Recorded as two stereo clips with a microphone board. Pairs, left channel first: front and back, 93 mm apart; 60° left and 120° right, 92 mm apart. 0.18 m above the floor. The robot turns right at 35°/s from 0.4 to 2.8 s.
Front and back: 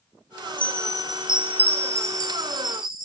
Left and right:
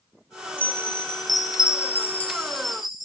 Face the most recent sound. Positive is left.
turn(degrees=155)